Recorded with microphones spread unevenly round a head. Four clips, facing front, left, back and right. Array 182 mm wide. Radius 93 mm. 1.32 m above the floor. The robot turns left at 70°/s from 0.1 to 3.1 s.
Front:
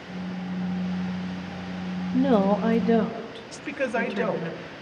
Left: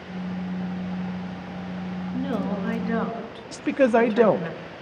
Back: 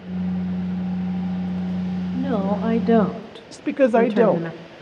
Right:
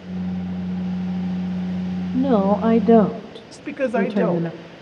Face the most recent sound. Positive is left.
turn(degrees=150)